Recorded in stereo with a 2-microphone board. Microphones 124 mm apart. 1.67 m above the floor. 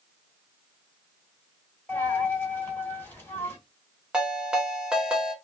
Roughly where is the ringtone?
Centre.